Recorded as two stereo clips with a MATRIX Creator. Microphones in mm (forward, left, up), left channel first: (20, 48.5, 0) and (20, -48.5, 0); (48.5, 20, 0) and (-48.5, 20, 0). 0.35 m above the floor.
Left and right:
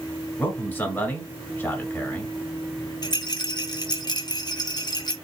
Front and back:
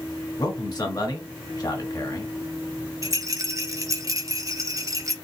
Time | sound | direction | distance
0.4 | a man speaking | 25° left | 1.2 m
3.0 | a rattle | 125° left | 0.6 m